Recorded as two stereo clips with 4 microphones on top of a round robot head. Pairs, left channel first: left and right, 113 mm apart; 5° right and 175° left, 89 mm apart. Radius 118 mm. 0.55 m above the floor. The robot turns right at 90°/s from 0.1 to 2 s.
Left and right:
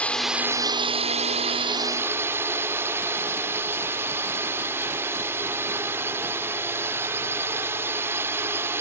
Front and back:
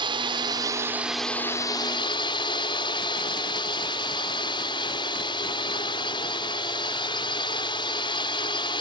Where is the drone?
170° left; by 8.8 s 20° right.